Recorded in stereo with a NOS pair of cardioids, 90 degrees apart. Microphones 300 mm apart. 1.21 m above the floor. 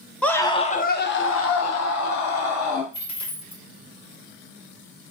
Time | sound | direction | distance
0.2 | a scream | 5° left | 0.8 m
2.9 | a dropped coin | 65° left | 1.5 m